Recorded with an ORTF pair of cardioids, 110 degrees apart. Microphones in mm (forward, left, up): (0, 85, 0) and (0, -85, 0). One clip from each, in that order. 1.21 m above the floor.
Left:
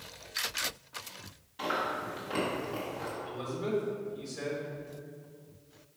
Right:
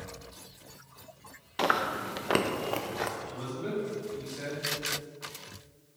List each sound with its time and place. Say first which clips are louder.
1.6 s chewing: right 4 dB; 65° right, 0.7 m
3.3 s a man speaking: left 2 dB; 10° left, 2.5 m